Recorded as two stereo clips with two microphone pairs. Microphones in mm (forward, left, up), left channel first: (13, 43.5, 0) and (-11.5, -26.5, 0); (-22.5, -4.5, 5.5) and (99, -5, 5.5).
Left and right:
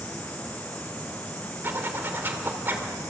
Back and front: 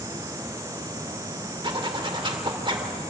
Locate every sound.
1.6 s a zipper: 50° right, 2.5 m